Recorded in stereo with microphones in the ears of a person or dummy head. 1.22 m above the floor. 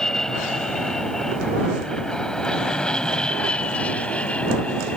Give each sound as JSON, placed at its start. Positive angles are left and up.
{"t": 0.0, "sound": "an aircraft", "side_deg": 0}